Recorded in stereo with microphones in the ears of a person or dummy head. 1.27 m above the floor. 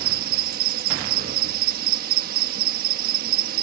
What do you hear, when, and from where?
0.0 s an insect: 55° right (ahead or behind)